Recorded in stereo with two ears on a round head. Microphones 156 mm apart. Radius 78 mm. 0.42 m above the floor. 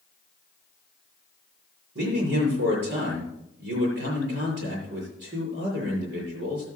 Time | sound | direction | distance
1.9 | a man speaking | 70° right (ahead or behind) | 7.5 m